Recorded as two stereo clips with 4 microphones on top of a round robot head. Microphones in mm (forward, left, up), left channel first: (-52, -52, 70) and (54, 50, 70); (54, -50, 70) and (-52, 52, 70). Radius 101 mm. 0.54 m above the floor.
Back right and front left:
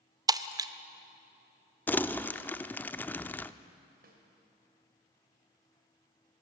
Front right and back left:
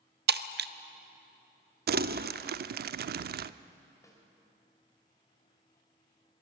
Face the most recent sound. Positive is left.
turn(degrees=25)